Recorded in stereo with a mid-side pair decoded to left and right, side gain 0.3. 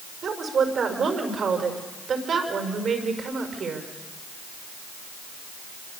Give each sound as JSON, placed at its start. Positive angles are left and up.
{"t": 0.2, "sound": "a woman speaking", "azimuth_deg": -70, "distance_m": 5.5}